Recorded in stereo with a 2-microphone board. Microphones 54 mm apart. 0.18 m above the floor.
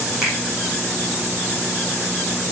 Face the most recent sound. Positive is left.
turn(degrees=-10)  # may be behind; listen again after turning